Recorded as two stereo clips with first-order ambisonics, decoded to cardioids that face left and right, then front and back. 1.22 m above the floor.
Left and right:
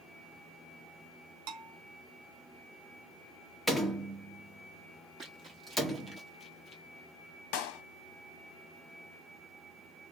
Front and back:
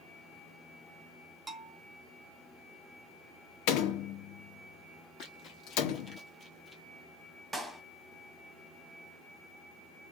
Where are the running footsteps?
35° right, 1.7 m; by 6.8 s 95° left, 1.3 m.